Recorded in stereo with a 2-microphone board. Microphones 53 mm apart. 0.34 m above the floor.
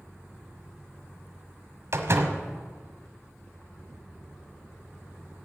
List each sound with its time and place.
1.9 s a door slam: 55° right (ahead or behind), 1.3 m